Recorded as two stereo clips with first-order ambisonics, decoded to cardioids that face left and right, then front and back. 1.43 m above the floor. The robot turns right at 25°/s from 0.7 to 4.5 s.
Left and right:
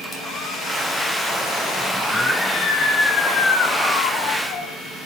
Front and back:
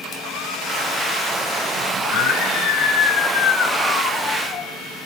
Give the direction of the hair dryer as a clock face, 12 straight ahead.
11 o'clock.